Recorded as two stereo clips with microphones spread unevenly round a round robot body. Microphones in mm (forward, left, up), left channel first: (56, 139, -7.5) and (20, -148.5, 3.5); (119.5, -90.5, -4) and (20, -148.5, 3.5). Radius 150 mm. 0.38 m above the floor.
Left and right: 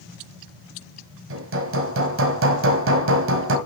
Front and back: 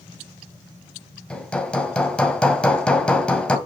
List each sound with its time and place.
1.3 s hammering: 50° right, 1.8 m